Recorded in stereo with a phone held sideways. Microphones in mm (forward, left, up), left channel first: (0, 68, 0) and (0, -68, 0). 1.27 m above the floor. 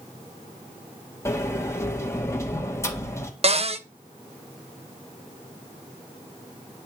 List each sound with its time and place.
1.2 s a sliding door: 20° left (ahead or behind), 1.5 m
3.4 s a cupboard door: 50° right (ahead or behind), 0.7 m